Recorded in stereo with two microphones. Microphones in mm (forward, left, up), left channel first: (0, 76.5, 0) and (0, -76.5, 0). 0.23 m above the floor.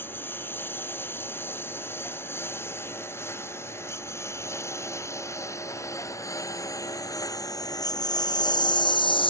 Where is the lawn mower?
15° left (ahead or behind); by 9.3 s 35° left (ahead or behind).